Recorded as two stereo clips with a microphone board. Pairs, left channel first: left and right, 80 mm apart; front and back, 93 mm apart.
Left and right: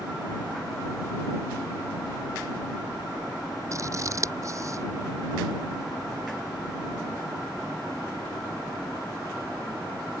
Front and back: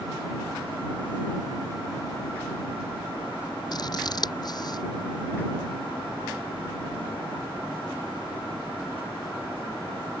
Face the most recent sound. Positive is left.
turn(degrees=-40)